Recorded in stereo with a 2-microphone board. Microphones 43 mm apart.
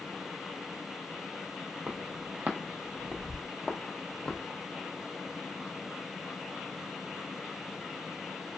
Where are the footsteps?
45° right (ahead or behind), 1.1 m; by 4.4 s 25° left (ahead or behind), 1.0 m.